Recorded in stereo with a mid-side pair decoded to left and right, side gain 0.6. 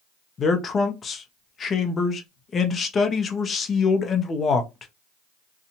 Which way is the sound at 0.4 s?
35° left.